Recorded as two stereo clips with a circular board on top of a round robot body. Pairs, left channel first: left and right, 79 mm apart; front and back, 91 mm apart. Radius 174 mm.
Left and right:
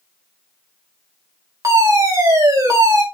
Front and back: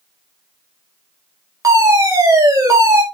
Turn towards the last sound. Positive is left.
turn(degrees=-130)